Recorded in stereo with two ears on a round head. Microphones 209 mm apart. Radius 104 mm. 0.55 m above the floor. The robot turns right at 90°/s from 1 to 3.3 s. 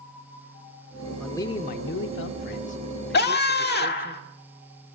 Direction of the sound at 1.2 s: Straight ahead.